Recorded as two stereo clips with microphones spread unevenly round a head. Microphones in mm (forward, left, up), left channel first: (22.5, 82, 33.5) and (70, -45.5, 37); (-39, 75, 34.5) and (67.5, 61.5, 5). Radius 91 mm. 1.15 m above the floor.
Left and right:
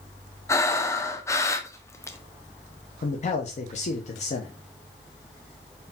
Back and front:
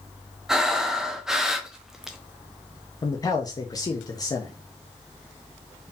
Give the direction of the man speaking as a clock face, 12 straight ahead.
8 o'clock.